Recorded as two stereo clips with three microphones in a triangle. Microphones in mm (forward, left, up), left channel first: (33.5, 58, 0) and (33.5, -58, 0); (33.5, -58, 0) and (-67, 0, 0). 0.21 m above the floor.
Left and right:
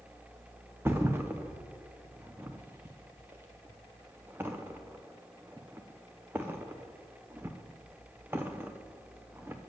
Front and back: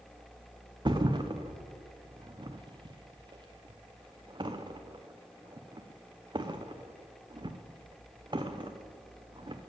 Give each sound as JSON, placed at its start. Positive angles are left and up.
{"t": 0.8, "sound": "a thud", "azimuth_deg": -160, "distance_m": 0.8}